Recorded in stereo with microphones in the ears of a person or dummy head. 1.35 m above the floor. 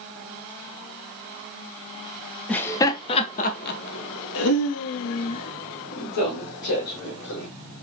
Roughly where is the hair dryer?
I don't hear a hair dryer.